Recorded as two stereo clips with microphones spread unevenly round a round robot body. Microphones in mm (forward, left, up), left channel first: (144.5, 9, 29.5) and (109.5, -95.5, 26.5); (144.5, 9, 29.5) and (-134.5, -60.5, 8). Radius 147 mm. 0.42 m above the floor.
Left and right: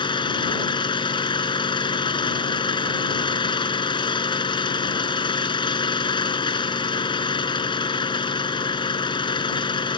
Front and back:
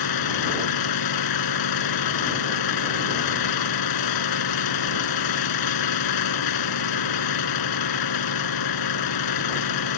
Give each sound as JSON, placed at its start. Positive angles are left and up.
{"t": 0.0, "sound": "an engine running", "azimuth_deg": 30}